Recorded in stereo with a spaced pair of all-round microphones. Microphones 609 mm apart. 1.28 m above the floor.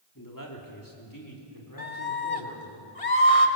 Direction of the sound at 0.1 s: 30° left (ahead or behind).